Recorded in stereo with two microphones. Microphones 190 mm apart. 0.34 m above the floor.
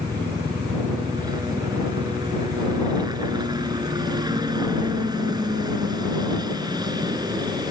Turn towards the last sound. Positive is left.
turn(degrees=-20)  # may be behind; listen again after turning